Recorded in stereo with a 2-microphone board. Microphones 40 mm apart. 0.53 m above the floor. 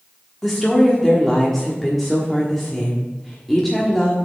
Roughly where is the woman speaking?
Centre.